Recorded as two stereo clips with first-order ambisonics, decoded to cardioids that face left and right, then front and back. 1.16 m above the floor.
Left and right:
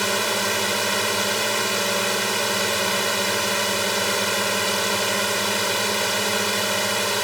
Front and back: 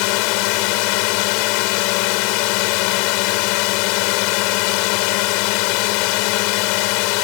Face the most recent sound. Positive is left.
turn(degrees=-5)